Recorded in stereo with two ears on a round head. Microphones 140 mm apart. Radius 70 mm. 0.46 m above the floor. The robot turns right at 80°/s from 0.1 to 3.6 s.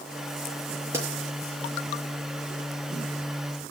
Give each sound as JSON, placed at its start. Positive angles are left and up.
{"t": 0.9, "sound": "a pop", "side_deg": -20, "distance_m": 6.0}